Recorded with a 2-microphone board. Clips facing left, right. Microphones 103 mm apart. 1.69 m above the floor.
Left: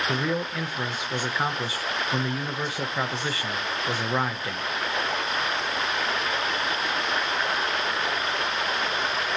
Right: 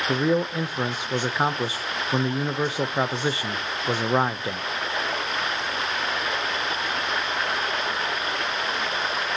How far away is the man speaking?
About 0.7 m.